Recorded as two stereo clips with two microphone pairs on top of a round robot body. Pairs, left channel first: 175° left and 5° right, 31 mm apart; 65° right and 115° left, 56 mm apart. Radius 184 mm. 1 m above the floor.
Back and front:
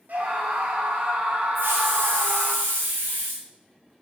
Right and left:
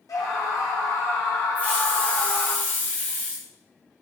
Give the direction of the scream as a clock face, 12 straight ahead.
1 o'clock.